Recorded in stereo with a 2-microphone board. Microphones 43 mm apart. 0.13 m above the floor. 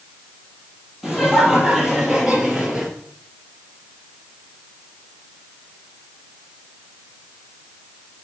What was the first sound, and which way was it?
Laughter, 10° right (ahead or behind).